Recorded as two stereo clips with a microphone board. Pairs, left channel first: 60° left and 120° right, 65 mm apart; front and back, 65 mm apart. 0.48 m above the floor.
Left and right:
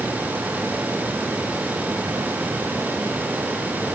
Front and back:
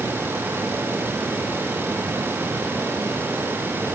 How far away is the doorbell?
No doorbell in this recording.